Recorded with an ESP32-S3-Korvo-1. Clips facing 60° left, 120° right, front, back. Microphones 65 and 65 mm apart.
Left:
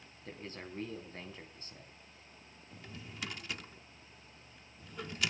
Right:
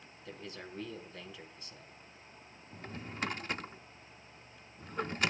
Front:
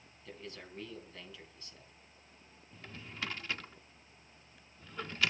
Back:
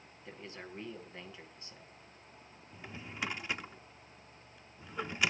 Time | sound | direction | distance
0.2 | a man speaking | 110° left | 4 m
2.7 | a drawer | 115° right | 0.6 m